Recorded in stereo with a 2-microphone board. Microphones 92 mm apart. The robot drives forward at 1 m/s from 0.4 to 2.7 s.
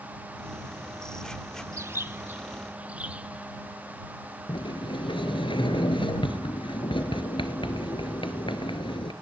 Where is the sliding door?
70° left (ahead or behind), 1.3 m.